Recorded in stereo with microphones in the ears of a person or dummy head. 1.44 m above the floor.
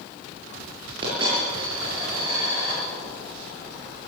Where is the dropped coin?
30° right (ahead or behind), 8 m.